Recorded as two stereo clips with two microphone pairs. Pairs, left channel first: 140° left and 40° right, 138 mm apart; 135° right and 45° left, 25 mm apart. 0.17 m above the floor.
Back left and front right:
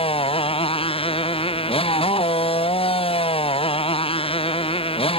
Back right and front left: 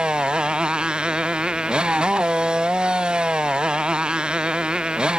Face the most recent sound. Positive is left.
turn(degrees=95)